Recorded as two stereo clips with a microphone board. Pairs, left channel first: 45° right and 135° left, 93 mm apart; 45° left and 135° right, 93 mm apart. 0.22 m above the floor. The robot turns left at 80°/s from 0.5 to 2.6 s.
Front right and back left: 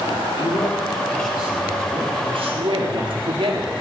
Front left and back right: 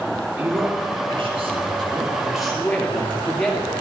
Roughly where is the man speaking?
Right.